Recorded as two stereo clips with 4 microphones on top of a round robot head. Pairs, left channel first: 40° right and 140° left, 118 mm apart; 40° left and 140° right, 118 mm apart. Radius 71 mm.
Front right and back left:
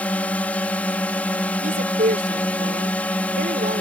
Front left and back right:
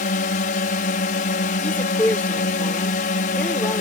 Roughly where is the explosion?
No explosion in this recording.